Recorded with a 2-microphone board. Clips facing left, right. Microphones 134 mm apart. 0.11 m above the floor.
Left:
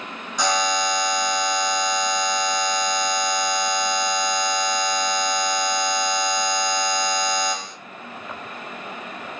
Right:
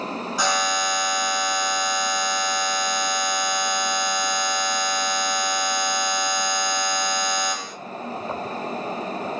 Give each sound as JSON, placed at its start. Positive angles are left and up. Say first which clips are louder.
{"t": 0.4, "sound": "a buzzer", "louder": "left 3 dB", "side_deg": -5, "distance_m": 1.4}